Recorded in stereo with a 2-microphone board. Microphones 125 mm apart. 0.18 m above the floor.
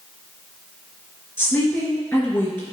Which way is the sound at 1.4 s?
15° left (ahead or behind).